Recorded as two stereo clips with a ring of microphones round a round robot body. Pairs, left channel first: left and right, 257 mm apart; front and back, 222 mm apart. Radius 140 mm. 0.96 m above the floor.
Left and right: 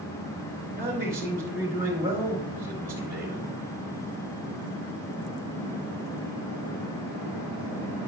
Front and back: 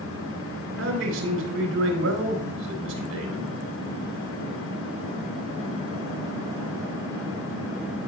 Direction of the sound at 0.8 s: 170° right.